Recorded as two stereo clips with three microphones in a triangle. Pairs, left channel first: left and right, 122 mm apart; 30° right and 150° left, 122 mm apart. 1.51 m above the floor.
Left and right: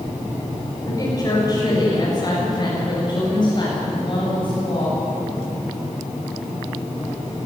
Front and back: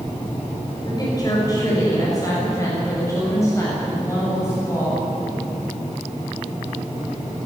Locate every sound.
0.9 s a woman speaking: 30° left, 7 m; by 5.0 s 40° left, 9.5 m